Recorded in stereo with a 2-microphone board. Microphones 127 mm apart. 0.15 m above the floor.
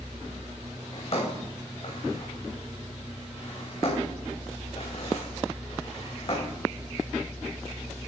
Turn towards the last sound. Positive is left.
turn(degrees=50)  # may be behind; listen again after turning